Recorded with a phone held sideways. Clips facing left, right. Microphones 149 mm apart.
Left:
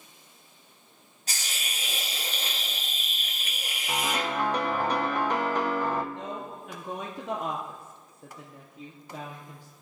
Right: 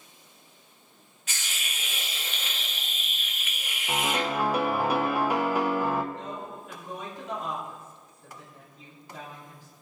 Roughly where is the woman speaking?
Left.